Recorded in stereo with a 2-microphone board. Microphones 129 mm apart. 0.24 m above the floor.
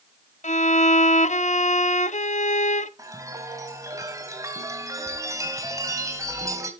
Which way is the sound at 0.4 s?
65° left (ahead or behind).